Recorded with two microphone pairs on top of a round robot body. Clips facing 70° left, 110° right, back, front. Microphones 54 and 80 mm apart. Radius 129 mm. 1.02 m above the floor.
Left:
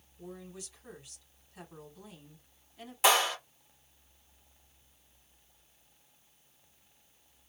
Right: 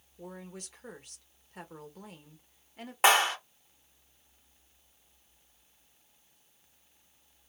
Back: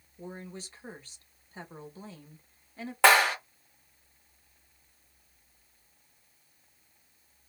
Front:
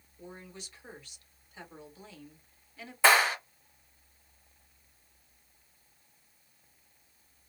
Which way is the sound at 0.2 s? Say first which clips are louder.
Right 1 dB, back 5 dB; 130° right.